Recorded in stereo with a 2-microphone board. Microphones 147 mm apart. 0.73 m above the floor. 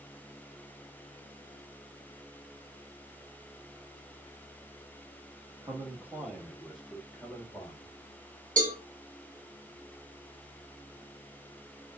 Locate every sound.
5.6 s a man speaking: 20° right (ahead or behind), 1.2 m; by 8.0 s 10° left (ahead or behind), 2 m
8.6 s a cowbell: 65° right (ahead or behind), 1.0 m